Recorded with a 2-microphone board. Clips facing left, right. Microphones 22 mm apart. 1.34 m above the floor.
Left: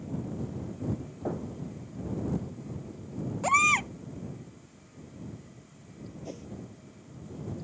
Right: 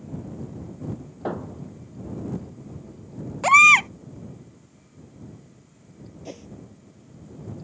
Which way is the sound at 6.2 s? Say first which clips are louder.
Right 4 dB; 25° right (ahead or behind).